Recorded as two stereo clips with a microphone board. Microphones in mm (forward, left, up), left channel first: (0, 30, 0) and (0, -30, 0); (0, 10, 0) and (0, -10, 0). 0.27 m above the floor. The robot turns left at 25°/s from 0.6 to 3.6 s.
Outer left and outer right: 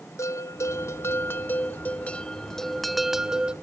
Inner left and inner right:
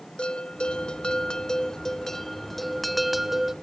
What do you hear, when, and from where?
0.2 s a bell: 60° left, 0.6 m; by 3.5 s 15° right, 0.6 m